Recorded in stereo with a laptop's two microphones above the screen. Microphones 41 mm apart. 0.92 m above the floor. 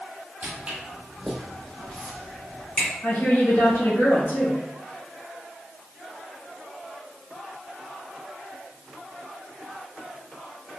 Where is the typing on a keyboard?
I don't hear typing on a keyboard.